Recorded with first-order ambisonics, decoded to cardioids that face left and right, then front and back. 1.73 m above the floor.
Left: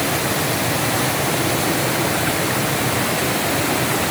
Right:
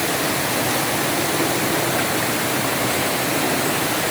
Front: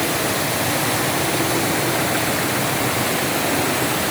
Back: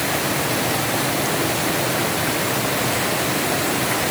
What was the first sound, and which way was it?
Only background noise.